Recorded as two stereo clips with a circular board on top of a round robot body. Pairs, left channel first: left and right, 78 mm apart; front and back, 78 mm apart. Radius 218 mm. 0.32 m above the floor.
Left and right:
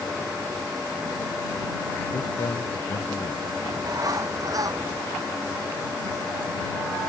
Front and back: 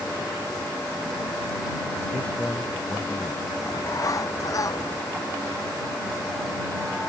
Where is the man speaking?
70° left.